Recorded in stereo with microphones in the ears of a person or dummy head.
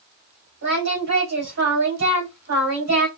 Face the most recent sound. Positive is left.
turn(degrees=-60)  # may be behind; listen again after turning